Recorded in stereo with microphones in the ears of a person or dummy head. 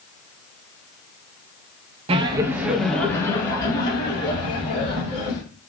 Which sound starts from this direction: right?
Laughter, at 2.1 s.